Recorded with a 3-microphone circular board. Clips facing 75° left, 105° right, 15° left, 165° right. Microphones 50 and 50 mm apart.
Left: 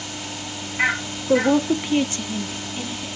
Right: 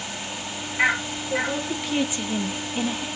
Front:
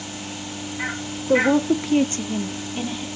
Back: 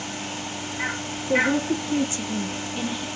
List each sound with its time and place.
1.3 s a woman speaking: 50° left, 0.7 m; by 3.1 s 65° right, 1.3 m